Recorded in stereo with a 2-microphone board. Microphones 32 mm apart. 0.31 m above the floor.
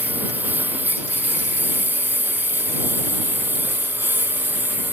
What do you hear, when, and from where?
0.0 s a lawn mower: 70° right (ahead or behind); by 4.9 s 85° right